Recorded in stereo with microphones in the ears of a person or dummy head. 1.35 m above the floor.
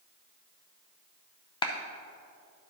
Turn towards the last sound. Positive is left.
turn(degrees=25)  # may be behind; listen again after turning